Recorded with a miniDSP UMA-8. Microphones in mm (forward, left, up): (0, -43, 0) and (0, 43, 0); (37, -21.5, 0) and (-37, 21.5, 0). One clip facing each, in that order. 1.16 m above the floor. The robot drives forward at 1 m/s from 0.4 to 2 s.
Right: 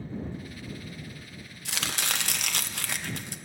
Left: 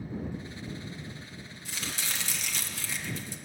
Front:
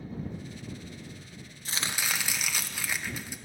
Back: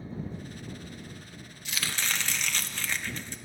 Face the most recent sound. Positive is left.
turn(degrees=-110)